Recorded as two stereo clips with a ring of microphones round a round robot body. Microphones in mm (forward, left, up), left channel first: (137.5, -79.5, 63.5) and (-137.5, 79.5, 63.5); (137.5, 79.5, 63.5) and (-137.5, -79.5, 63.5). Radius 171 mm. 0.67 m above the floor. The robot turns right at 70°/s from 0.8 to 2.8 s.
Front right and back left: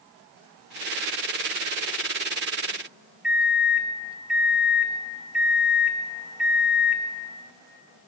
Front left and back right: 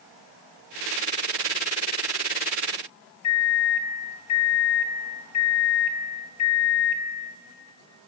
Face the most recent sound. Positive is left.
turn(degrees=65)